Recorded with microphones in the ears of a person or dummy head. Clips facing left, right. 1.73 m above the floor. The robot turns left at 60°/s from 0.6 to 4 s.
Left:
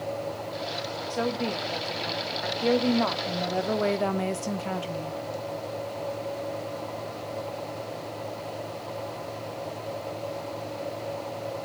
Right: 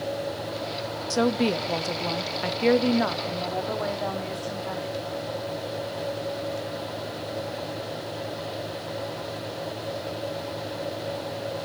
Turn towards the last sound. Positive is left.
turn(degrees=130)